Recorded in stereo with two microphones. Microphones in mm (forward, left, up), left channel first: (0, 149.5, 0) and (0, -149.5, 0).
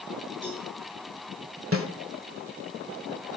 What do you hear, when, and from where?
0.4 s a cowbell: 40° right (ahead or behind), 9.5 m
1.7 s a snare drum: 45° right (ahead or behind), 1.7 m